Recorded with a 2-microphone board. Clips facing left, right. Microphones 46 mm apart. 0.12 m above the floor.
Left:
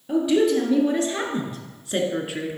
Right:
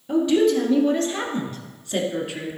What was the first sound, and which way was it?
A woman speaking, 5° left (ahead or behind).